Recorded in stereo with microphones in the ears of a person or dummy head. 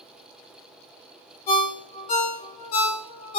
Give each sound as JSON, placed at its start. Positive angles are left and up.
{"t": 1.5, "sound": "a ringtone", "side_deg": 50, "distance_m": 1.0}